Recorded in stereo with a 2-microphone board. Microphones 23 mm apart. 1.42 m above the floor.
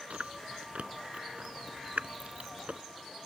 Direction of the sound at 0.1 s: 65° right (ahead or behind).